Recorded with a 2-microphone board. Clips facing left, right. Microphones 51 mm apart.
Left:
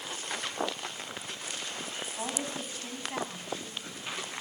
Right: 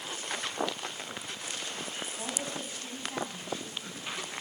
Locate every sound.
2.2 s a woman speaking: 30° left (ahead or behind), 9 m